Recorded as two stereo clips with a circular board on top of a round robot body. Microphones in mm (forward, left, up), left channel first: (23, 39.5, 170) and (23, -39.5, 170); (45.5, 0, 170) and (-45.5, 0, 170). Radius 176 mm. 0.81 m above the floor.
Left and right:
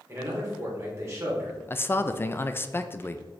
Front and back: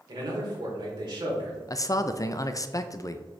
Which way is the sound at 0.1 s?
145° right.